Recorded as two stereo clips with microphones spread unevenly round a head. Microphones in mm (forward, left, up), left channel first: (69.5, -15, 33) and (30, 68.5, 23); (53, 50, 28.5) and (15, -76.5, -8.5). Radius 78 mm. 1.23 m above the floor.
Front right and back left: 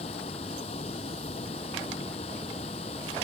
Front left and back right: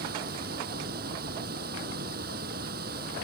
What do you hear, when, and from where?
0.0 s running water: 110° right